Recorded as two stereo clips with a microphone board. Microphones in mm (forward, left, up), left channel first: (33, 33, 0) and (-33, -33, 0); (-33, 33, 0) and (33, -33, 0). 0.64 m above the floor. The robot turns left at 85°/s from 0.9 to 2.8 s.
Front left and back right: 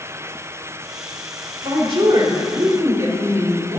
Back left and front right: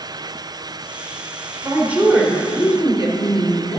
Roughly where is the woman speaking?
Right.